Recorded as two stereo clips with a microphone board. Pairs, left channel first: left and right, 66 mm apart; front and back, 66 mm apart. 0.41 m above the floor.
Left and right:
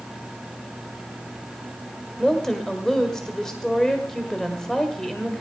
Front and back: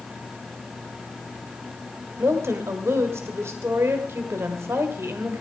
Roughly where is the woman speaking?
Behind.